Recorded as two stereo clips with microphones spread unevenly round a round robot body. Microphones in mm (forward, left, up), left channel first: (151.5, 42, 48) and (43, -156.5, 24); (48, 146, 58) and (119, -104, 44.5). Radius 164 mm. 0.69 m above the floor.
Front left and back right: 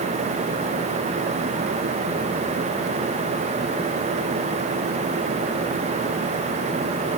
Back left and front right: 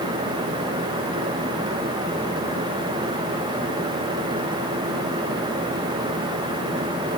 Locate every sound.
Only background noise.